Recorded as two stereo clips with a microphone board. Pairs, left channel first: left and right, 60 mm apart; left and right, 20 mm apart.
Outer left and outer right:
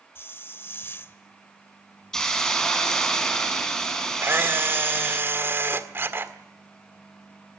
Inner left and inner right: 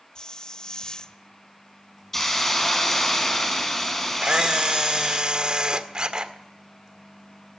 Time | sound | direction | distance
0.1 | a hiss | 40° left (ahead or behind) | 1.0 m
2.1 | a hiss | 10° left (ahead or behind) | 4.5 m
4.2 | a camera shutter | 35° right (ahead or behind) | 1.7 m